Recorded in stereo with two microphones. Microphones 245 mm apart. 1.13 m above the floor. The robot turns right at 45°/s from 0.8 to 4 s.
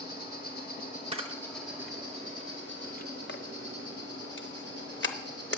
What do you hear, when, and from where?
0.0 s an insect: 145° left, 2.5 m; by 5.6 s 70° right, 2.5 m
1.1 s a camera shutter: 25° right (ahead or behind), 0.6 m; by 5.6 s 50° left (ahead or behind), 0.6 m